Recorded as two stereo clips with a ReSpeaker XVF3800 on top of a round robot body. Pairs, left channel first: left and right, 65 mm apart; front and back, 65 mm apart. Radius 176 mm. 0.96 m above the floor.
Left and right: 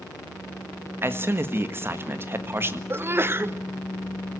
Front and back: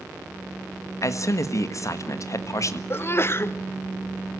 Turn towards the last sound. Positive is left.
turn(degrees=-45)